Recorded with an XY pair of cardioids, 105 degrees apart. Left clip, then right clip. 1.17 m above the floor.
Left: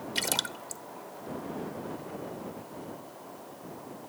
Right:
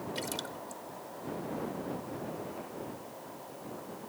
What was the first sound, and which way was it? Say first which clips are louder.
A splash: left 11 dB; 70° left.